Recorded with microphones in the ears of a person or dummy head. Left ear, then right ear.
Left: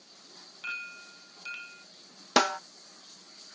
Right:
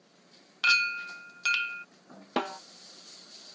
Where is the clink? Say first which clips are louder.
Right 14 dB; 55° right (ahead or behind).